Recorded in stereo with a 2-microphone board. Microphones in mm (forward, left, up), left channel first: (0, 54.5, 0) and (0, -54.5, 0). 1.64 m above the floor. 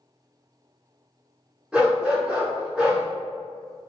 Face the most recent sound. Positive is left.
turn(degrees=-5)  # may be behind; listen again after turning